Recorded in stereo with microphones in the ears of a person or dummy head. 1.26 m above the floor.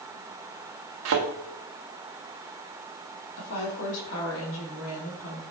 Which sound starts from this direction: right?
A thud, at 1.1 s.